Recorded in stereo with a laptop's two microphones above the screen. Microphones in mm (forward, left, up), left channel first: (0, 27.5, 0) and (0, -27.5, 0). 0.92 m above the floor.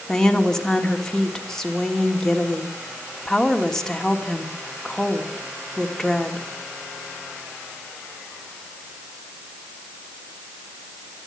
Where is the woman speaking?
10° left (ahead or behind), 3 m.